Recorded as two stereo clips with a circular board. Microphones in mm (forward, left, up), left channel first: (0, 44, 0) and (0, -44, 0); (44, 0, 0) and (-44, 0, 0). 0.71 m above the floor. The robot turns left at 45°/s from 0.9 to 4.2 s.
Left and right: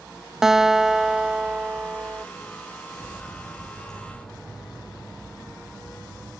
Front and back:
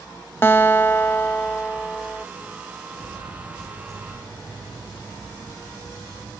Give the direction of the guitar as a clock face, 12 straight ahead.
1 o'clock.